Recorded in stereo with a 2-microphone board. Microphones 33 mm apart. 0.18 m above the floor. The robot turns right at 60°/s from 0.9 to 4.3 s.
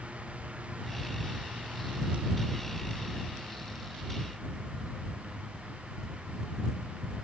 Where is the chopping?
No chopping in this recording.